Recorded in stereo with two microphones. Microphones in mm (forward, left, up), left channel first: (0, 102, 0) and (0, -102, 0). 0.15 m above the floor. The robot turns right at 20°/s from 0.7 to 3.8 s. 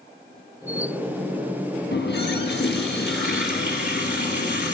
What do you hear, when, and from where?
1.9 s a running tap: 75° left, 1.7 m; by 4.8 s 110° left, 1.7 m